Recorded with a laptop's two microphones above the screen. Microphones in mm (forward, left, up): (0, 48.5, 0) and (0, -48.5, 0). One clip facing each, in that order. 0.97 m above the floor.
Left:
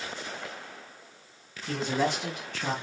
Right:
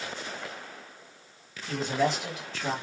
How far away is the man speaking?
About 2.5 m.